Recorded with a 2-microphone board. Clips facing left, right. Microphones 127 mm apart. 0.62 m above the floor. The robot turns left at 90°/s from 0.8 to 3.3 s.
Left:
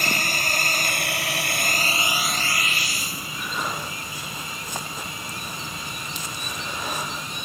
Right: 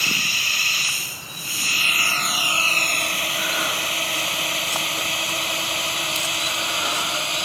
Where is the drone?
50° left (ahead or behind); by 7.5 s 85° right.